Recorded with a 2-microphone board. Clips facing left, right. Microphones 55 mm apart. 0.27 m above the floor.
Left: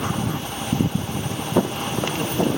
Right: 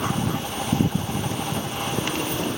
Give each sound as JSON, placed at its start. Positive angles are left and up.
{"t": 1.6, "sound": "footsteps", "side_deg": 70, "distance_m": 0.8}